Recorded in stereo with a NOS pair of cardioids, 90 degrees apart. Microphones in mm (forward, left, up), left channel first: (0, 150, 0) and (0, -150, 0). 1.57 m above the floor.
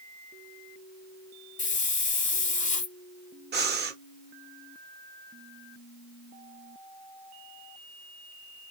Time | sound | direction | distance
1.6 | a hiss | 25° left | 0.7 m
3.5 | breathing | 35° right | 0.9 m